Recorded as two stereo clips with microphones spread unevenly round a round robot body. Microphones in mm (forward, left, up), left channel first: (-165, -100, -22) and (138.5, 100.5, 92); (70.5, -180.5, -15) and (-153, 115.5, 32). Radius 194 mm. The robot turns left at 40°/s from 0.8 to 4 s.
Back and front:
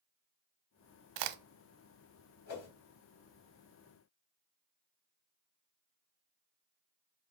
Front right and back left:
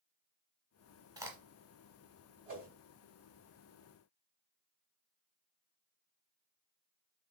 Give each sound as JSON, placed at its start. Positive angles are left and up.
{"t": 1.2, "sound": "a crack", "azimuth_deg": 45, "distance_m": 0.6}
{"t": 2.5, "sound": "a whoosh", "azimuth_deg": -170, "distance_m": 2.5}